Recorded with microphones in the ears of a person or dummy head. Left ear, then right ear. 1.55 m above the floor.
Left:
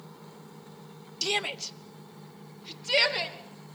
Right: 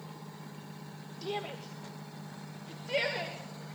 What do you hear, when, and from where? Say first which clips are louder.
1.2 s a shout: left 9 dB; 70° left (ahead or behind), 1.0 m; by 3.4 s 45° left (ahead or behind), 3 m